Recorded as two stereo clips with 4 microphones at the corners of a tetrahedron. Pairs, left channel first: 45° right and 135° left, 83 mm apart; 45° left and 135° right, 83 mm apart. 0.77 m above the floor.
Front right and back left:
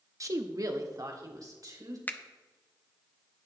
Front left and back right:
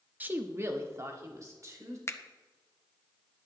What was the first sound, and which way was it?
A woman speaking, 160° left.